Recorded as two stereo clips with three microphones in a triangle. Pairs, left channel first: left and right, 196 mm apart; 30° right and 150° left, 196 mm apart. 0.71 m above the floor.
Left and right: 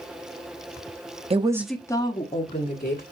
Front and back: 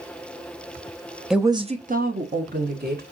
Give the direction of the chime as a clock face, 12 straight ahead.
I don't hear a chime.